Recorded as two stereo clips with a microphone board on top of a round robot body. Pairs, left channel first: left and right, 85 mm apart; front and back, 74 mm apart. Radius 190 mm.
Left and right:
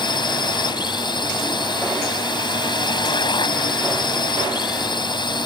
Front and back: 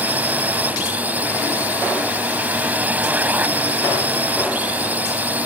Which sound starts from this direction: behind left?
A drone, at 0.0 s.